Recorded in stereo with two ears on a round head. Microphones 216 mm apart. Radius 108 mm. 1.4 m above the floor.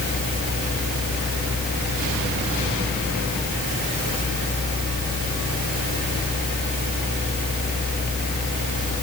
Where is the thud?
No thud in this recording.